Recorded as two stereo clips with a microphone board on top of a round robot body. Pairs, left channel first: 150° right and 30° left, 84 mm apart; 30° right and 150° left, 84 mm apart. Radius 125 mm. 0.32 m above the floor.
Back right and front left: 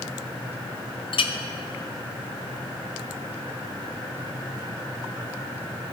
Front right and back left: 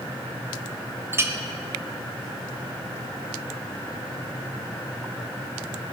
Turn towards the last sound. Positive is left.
turn(degrees=-150)